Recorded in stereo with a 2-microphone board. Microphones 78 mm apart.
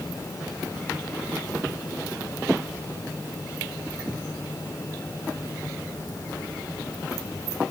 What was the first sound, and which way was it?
Only background noise.